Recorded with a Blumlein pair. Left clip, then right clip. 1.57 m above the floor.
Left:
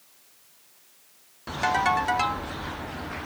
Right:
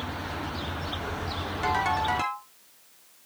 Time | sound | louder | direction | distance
1.6 | a ringtone | left 3 dB | 15° left | 2 m